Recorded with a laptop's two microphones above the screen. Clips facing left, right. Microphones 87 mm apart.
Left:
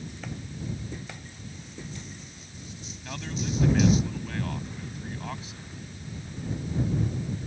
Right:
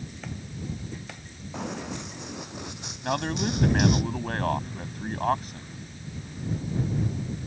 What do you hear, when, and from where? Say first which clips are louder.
1.5 s running footsteps: right 11 dB; 80° right; by 4.0 s 65° right (ahead or behind)
3.0 s a man speaking: right 7 dB; 55° right (ahead or behind)